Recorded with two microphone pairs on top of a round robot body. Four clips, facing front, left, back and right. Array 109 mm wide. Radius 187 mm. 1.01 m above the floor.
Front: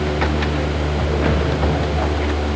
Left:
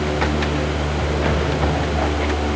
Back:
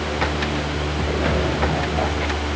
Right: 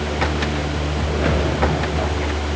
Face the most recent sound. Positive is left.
No sound to turn to.